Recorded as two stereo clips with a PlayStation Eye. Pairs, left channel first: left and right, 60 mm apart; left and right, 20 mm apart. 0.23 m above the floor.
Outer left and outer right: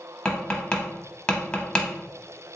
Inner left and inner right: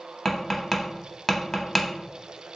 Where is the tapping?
15° left (ahead or behind), 0.8 m.